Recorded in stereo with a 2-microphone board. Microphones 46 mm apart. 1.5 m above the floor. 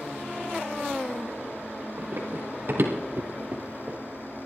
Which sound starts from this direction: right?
Running footsteps, at 2.0 s.